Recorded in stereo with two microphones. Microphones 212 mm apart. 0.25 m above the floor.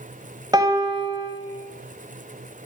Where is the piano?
20° right (ahead or behind), 1.5 m.